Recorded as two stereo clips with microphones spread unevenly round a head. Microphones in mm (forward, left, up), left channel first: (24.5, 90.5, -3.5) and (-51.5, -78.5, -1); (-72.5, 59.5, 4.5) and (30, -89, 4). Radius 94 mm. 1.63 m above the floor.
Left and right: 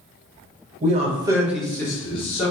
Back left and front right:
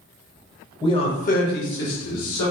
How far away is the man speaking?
About 1.0 m.